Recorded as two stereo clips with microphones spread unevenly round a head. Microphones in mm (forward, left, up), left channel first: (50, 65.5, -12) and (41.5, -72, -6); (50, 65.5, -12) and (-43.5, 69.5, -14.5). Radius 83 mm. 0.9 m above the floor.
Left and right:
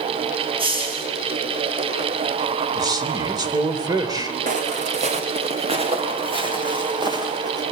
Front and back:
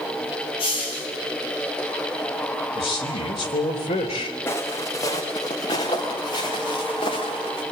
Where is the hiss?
45° right, 7.5 m.